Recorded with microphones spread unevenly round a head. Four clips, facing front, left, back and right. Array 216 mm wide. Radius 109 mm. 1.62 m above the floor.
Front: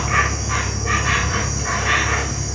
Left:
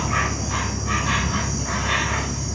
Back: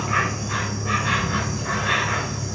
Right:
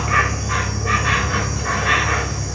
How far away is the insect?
About 3 m.